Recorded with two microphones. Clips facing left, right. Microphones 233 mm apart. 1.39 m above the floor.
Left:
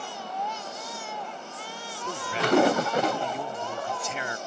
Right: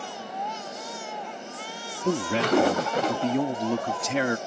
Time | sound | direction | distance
2.0 | a man speaking | 80° right | ?